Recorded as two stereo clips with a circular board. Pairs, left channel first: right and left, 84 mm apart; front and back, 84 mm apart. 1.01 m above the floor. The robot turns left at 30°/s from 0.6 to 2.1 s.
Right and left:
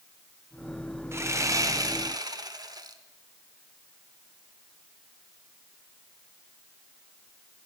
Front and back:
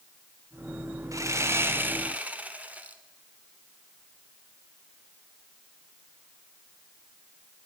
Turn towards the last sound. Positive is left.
turn(degrees=110)